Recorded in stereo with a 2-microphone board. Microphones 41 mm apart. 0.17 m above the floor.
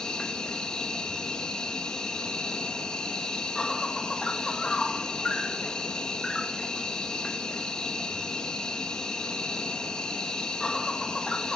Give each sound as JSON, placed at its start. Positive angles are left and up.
{"t": 0.0, "sound": "an insect", "side_deg": 15, "distance_m": 1.1}